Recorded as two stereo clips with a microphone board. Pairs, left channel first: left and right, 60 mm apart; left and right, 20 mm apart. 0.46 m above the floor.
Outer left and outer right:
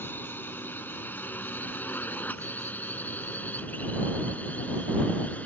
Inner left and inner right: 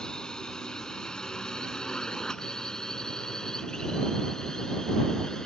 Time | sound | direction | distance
0.0 | a drone | 35° left (ahead or behind) | ?